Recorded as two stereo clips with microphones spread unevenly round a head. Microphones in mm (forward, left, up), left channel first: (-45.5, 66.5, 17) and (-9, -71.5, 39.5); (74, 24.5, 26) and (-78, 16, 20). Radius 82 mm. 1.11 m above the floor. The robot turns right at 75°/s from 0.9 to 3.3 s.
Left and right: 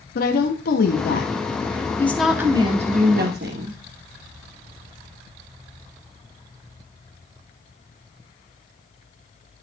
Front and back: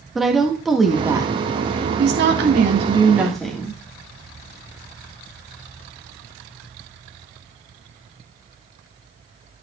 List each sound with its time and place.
0.1 s a woman speaking: 95° left, 1.5 m; by 3.8 s 85° right, 1.5 m